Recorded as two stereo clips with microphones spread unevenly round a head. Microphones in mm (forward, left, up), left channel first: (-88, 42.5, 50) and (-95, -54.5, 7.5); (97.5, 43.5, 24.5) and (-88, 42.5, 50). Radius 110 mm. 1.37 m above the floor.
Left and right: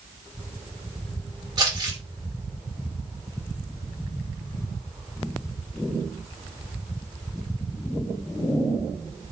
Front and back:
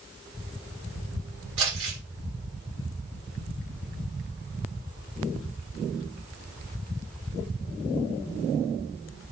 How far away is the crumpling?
About 1.9 m.